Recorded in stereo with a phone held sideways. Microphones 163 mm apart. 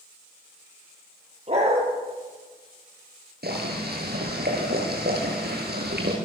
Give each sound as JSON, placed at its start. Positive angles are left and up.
{"t": 1.5, "sound": "a dog barking", "side_deg": -40, "distance_m": 9.0}
{"t": 3.4, "sound": "boiling", "side_deg": -80, "distance_m": 8.5}